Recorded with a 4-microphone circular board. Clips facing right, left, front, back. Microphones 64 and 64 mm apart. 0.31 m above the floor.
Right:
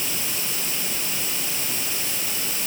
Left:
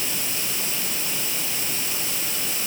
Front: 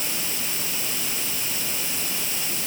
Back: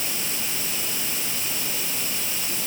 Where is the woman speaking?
No woman speaking in this recording.